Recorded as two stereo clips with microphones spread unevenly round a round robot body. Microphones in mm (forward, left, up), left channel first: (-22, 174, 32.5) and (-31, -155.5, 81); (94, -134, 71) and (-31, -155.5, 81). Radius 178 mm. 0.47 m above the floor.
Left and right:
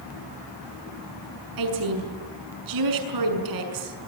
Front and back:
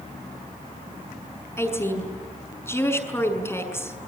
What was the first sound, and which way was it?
A woman speaking, 60° right.